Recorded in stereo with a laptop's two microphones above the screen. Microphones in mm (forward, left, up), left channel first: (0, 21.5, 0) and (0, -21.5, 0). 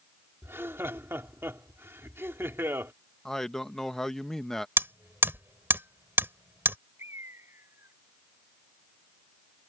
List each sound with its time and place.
0.4 s laughter: 65° right (ahead or behind)
3.2 s a man speaking: 10° left (ahead or behind)
4.8 s hammering: 50° right (ahead or behind)
7.0 s a bird: 70° right (ahead or behind)